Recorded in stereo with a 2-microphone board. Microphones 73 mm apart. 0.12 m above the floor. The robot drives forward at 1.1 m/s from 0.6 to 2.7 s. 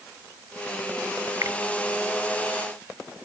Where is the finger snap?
45° right (ahead or behind).